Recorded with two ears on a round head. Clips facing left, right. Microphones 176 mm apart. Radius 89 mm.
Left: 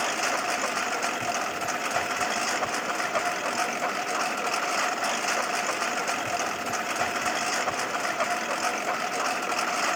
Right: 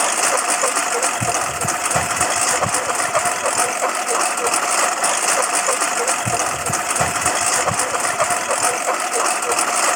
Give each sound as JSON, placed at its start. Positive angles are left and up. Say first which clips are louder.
{"t": 0.0, "sound": "a lawn mower", "louder": "right 8 dB", "side_deg": -70}